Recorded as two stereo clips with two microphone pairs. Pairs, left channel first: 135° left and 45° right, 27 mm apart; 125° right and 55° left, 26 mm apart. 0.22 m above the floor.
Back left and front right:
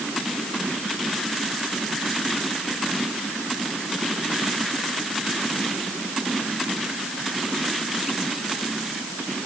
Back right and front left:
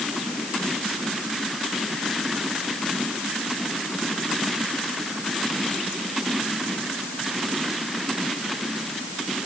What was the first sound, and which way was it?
Only background noise.